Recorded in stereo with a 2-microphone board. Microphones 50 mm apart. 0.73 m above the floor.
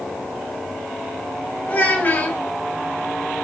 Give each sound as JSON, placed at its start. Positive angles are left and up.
{"t": 1.7, "sound": "a child speaking", "side_deg": 30, "distance_m": 2.0}